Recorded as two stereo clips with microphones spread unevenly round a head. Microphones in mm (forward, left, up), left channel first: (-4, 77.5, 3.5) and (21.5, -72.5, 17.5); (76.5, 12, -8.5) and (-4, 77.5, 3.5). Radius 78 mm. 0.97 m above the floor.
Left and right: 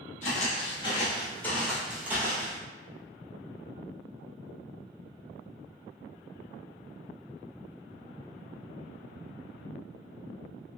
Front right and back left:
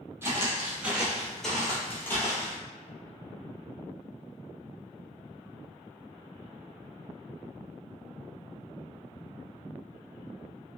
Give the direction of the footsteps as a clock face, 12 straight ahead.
9 o'clock.